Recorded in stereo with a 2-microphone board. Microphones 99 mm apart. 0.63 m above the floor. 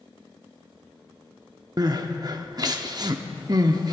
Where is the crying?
40° right (ahead or behind), 0.8 m.